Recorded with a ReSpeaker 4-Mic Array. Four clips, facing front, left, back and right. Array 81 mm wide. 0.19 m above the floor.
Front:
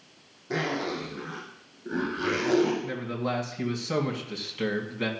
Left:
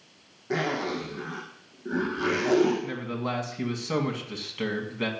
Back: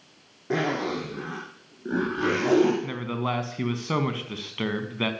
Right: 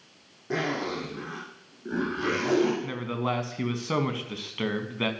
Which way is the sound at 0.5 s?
175° right.